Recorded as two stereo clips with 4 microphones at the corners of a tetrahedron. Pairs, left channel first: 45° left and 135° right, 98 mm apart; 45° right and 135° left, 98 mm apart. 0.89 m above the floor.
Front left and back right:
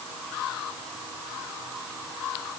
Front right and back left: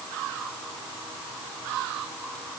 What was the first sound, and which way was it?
Only background noise.